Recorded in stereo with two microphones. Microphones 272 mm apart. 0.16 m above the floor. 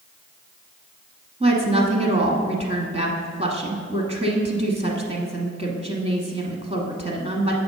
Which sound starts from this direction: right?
A woman speaking, at 1.4 s.